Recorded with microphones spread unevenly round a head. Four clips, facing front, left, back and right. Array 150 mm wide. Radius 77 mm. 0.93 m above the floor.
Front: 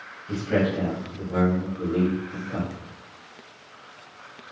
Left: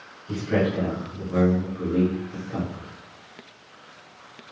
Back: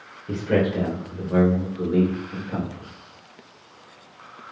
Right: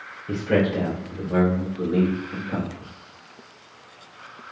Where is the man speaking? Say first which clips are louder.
Right 2 dB, back 2 dB; 140° right, 3 m; by 2.9 s 125° right, 4 m.